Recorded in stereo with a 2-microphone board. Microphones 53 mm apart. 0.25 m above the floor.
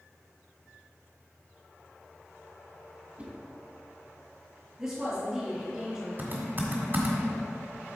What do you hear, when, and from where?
3.2 s a whoosh: 25° right (ahead or behind), 1.3 m
4.8 s a woman speaking: 20° right (ahead or behind), 2.5 m
6.2 s typing on a keyboard: 40° right (ahead or behind), 1.6 m